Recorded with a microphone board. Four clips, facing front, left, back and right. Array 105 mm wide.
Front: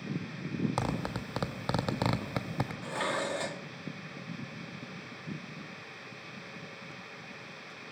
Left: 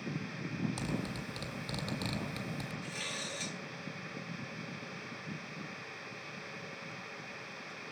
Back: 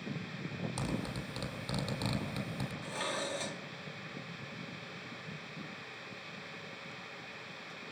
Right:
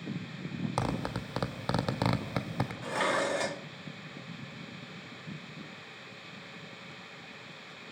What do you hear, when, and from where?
0.8 s a zipper: 50° right, 1.9 m
2.8 s dishes clattering: 70° right, 0.8 m